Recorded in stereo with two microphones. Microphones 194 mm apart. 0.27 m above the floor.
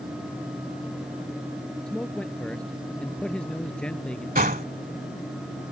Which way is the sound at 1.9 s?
5° left (ahead or behind).